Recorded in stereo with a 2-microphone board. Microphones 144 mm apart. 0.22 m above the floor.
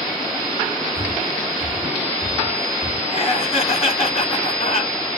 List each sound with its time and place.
0.9 s breathing: 80° left, 1.3 m
3.1 s laughter: 45° left (ahead or behind), 1.9 m